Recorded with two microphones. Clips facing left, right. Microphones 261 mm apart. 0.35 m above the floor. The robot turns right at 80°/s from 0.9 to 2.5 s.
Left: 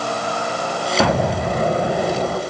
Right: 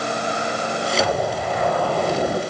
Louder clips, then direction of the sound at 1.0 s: Left 6 dB; 90° left.